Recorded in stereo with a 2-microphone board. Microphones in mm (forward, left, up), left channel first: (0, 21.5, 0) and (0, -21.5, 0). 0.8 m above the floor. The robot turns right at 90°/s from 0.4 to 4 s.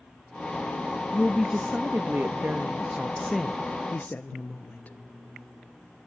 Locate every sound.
1.1 s a woman speaking: 155° left, 0.7 m; by 5.0 s 55° left, 0.7 m